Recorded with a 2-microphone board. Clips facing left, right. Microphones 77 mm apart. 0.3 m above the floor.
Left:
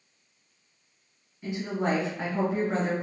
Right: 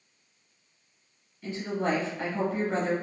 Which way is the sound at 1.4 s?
15° left (ahead or behind).